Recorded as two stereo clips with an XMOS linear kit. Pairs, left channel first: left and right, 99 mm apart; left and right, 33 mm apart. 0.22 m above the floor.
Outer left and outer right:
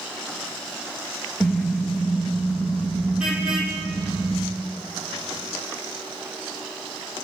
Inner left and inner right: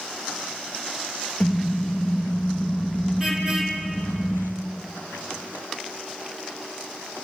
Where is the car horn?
Centre (ahead or behind), 2.5 m; by 4.4 s 10° right (ahead or behind), 6.5 m.